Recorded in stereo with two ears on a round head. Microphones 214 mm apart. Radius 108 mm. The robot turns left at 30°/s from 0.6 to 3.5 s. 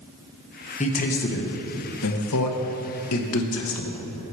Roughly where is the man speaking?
Left.